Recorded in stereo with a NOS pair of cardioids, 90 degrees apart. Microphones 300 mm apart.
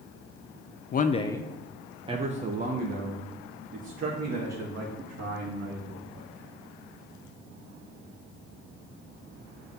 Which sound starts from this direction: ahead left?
A man speaking, at 0.9 s.